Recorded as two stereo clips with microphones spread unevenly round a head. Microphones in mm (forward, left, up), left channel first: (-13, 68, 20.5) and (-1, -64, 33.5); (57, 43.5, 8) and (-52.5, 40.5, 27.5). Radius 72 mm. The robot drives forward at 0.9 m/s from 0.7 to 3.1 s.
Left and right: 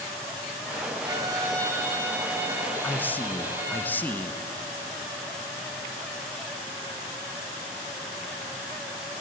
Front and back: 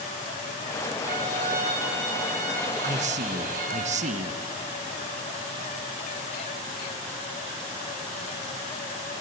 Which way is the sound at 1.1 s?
145° right.